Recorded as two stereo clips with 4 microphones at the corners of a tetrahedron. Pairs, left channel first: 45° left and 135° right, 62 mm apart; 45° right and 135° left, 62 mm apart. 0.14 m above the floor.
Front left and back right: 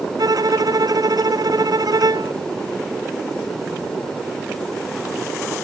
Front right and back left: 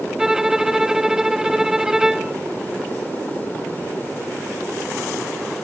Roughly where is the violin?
Behind right.